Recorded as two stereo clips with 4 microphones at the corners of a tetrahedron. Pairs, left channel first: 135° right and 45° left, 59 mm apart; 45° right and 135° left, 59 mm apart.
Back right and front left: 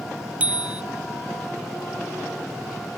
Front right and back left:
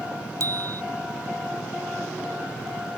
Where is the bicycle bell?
110° left.